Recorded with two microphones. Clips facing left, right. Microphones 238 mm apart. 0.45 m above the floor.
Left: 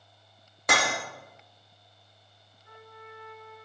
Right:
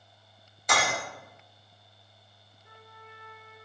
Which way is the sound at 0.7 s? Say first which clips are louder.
Left 1 dB; 75° left (ahead or behind).